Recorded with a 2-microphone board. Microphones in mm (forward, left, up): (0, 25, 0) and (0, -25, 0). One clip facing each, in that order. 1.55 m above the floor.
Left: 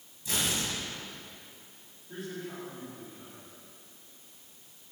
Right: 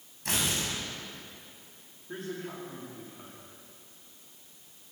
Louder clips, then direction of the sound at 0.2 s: Right 1 dB; 75° right (ahead or behind).